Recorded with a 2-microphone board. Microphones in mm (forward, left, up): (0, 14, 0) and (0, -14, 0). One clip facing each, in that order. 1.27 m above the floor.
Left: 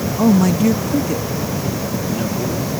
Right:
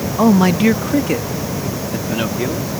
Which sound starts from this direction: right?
A man speaking, at 0.2 s.